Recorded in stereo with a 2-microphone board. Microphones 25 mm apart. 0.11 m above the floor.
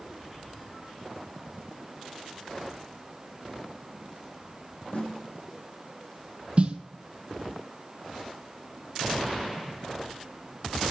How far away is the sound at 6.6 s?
About 0.9 m.